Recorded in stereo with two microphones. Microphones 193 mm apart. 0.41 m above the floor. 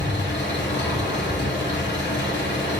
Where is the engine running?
65° left (ahead or behind), 4 m.